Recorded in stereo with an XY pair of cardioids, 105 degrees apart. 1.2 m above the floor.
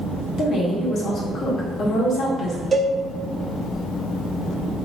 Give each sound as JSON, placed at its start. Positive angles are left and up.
{"t": 0.4, "sound": "a woman speaking", "azimuth_deg": 60, "distance_m": 1.3}
{"t": 2.7, "sound": "a cowbell", "azimuth_deg": -30, "distance_m": 0.8}